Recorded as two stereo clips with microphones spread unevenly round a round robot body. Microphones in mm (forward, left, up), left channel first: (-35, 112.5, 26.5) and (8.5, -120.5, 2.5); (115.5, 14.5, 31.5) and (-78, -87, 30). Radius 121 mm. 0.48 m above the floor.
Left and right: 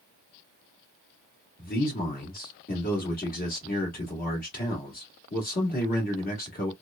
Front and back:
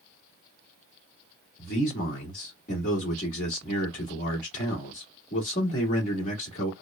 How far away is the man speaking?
About 1.1 m.